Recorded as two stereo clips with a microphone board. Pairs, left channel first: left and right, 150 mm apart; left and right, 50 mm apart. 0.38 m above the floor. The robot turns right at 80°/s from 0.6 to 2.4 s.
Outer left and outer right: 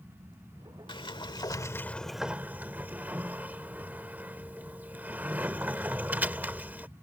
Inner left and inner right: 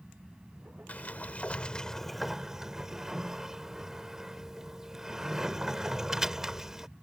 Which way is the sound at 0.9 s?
80° left.